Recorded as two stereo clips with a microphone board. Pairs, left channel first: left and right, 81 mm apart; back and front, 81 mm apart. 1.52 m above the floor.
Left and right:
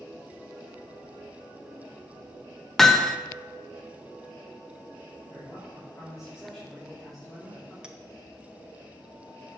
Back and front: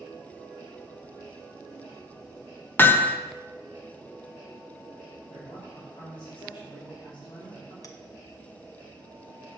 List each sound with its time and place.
2.8 s hammering: 170° left, 0.6 m
5.3 s a man speaking: straight behind, 4.5 m
7.8 s a clink: 165° right, 0.9 m